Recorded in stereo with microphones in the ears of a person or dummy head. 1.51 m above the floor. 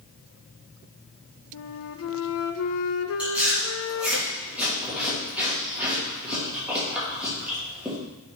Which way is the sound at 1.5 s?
70° left (ahead or behind).